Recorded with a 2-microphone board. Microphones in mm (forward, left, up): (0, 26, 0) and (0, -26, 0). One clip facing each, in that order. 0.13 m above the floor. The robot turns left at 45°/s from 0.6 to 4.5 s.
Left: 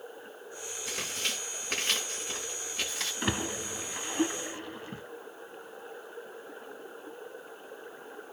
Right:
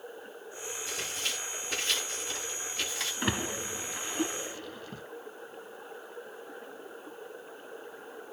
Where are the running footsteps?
I don't hear running footsteps.